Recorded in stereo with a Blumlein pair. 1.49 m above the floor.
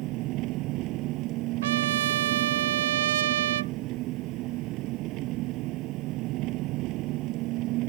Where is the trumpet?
60° right.